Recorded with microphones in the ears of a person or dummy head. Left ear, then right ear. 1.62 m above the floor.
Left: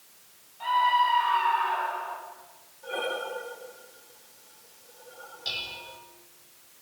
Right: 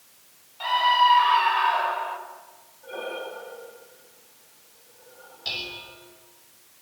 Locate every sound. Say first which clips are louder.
0.6 s a scream: right 3 dB; 35° right (ahead or behind), 6.5 m; by 2.2 s 30° right (ahead or behind), 5.5 m
2.8 s breathing: left 2 dB; 80° left, 4 m
5.5 s dishes clattering: right 2 dB; 5° right (ahead or behind), 5.5 m